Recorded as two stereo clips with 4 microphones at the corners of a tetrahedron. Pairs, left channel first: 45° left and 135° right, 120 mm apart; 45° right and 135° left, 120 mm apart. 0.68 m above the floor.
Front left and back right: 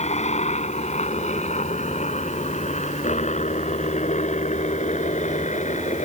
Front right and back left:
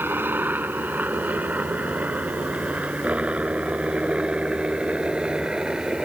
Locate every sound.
0.0 s a helicopter: 65° left; by 6.0 s 50° left